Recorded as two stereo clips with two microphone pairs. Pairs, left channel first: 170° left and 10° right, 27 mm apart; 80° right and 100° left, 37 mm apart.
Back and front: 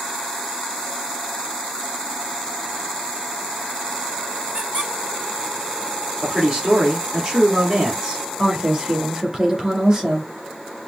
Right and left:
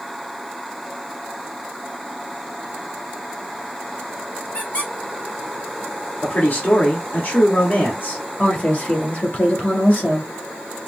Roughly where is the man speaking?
Ahead right.